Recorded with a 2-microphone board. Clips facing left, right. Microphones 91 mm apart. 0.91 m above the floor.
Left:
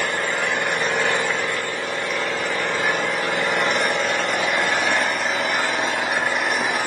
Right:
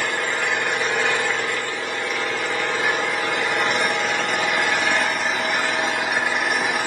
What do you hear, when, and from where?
0.0 s an engine running: centre (ahead or behind), 1.7 m